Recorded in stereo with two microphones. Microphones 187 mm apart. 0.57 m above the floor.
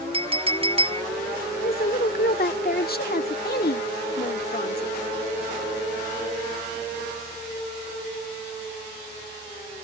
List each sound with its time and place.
0.1 s a clink: 30° right (ahead or behind)
1.6 s a woman speaking: 55° left (ahead or behind)